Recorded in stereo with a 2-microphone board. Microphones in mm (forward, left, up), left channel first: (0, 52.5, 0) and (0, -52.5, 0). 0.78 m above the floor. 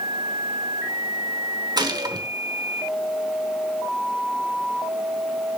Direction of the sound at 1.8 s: 40° right (ahead or behind).